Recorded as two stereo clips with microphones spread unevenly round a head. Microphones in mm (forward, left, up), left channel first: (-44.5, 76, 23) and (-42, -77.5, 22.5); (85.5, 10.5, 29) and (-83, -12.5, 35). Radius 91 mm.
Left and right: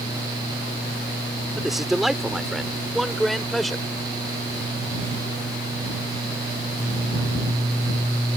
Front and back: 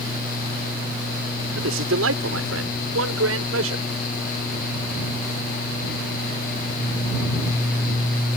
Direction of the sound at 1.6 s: 175° right.